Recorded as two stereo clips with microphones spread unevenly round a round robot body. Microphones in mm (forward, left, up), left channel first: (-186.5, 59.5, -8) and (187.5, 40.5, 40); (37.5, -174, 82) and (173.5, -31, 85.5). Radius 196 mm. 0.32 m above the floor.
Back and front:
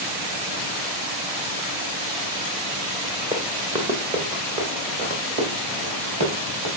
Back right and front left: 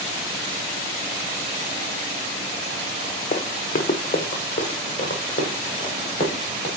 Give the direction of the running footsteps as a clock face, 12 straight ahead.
3 o'clock.